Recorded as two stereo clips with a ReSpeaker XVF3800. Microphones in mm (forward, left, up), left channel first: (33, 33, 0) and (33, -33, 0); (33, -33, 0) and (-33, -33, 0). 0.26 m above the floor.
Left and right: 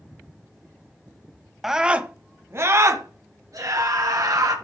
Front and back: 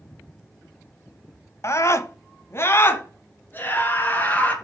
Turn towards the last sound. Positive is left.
turn(degrees=-65)